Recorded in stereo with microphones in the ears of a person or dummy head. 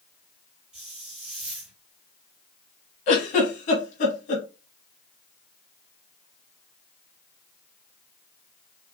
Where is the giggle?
50° left (ahead or behind), 1.4 m.